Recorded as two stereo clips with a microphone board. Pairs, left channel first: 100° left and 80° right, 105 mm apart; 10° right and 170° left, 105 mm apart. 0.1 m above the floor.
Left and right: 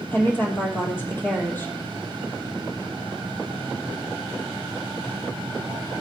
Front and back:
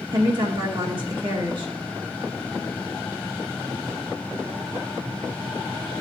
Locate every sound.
0.1 s a woman speaking: 160° left, 2.5 m